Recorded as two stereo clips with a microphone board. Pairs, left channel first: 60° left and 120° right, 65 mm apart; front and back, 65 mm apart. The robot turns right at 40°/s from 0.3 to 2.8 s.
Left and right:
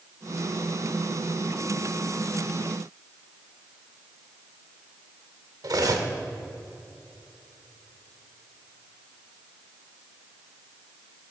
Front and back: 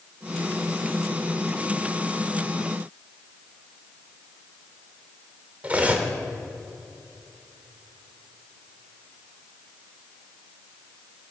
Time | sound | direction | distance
5.6 | cutlery clinking | 115° right | 1.1 m